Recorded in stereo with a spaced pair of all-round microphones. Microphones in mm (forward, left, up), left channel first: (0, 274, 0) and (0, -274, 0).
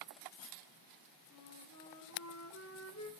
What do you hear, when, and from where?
1.3 s a flute: 30° left (ahead or behind), 2.5 m